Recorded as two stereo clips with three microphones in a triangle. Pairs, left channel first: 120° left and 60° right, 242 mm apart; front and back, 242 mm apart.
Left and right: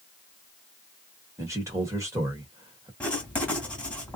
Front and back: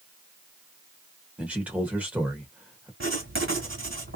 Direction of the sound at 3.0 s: 155° right.